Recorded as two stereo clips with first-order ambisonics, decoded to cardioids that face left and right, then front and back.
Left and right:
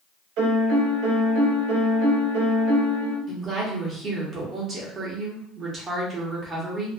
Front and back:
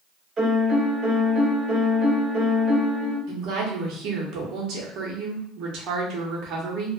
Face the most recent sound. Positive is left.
turn(degrees=-150)